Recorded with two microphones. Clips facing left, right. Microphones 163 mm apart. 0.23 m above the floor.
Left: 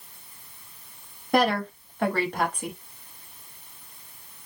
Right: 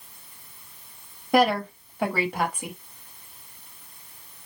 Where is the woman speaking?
5° right (ahead or behind), 0.9 m.